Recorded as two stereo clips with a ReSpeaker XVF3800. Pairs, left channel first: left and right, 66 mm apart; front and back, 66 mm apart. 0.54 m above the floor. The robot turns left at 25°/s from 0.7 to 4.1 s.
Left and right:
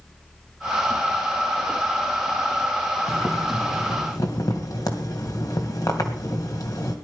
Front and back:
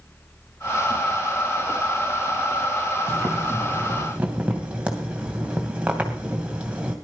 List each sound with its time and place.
3.1 s boiling: 135° left, 2.5 m; by 7.0 s 110° left, 2.5 m